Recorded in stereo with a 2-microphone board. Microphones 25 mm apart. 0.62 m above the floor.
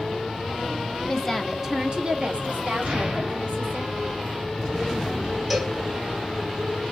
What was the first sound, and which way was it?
A woman speaking, 20° left (ahead or behind).